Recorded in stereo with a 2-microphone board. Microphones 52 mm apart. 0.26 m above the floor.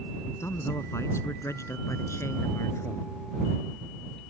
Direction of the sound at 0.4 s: 65° left (ahead or behind).